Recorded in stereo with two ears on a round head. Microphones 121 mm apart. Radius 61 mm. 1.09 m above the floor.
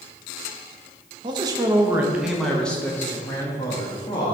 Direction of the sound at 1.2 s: 35° right (ahead or behind).